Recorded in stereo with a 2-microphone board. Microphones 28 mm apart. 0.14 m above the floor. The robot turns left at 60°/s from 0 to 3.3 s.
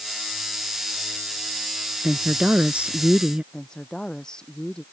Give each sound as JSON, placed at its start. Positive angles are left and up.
{"t": 2.0, "sound": "a woman speaking", "azimuth_deg": -45}
{"t": 3.5, "sound": "a woman speaking", "side_deg": 25}